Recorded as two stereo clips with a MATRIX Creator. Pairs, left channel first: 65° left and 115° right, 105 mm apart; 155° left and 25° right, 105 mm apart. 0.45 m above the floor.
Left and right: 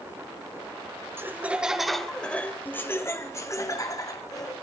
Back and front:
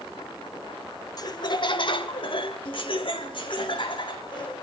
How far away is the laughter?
About 1.3 m.